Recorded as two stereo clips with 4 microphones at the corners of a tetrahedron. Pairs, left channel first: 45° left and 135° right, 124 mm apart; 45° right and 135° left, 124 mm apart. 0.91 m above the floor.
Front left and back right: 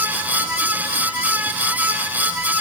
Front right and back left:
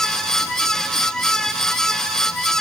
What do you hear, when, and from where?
Only background noise.